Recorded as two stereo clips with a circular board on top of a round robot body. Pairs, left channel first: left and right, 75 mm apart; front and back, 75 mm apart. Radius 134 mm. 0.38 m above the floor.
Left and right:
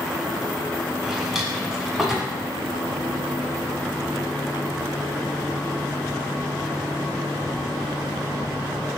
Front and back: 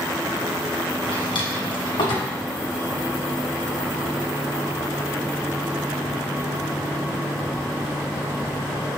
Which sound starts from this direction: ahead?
A drawer, at 1.0 s.